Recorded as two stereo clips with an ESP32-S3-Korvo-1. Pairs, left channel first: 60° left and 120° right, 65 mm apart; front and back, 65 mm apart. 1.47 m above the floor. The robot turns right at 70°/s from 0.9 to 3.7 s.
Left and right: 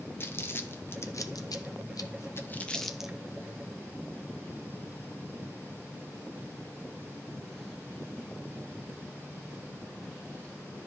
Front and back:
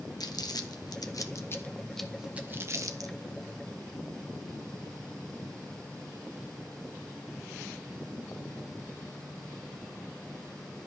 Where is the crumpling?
5° left, 1.7 m; by 3.1 s 165° left, 1.7 m.